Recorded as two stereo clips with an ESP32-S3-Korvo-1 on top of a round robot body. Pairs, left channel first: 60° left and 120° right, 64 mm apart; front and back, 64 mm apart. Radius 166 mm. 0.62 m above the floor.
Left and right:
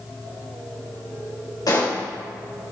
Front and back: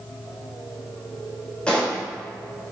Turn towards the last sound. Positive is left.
turn(degrees=75)